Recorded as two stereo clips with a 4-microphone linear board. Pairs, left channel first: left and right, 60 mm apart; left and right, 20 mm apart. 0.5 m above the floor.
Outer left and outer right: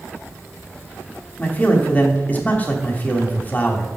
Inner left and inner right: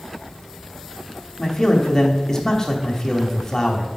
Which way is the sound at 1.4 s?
25° left (ahead or behind).